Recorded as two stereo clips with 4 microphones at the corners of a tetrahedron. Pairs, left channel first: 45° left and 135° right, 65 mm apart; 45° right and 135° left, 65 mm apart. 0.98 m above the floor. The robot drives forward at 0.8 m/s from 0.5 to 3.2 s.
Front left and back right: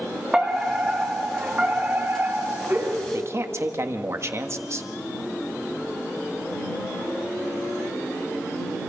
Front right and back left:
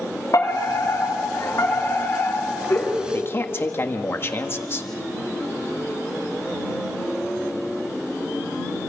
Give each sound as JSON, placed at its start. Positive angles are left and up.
{"t": 0.3, "sound": "a fire alarm", "azimuth_deg": -60, "distance_m": 3.5}
{"t": 3.1, "sound": "a man speaking", "azimuth_deg": -95, "distance_m": 1.5}